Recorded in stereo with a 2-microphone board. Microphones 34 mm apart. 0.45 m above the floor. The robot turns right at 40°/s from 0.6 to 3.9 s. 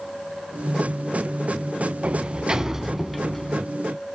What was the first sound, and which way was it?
A sliding door, 40° right.